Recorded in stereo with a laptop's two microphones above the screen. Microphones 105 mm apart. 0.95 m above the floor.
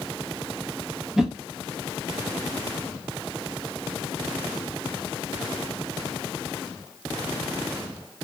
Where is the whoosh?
5° right (ahead or behind), 0.6 m.